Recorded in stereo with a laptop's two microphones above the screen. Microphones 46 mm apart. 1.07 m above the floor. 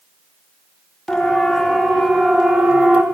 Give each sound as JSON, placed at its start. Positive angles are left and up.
{"t": 1.1, "sound": "a siren", "side_deg": 15, "distance_m": 3.0}